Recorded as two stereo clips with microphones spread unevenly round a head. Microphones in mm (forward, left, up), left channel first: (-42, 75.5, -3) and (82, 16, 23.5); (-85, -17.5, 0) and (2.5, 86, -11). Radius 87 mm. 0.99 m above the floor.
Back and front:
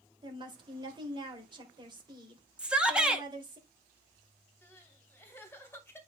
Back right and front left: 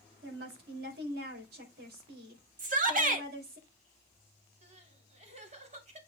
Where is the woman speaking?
30° left, 4.5 m.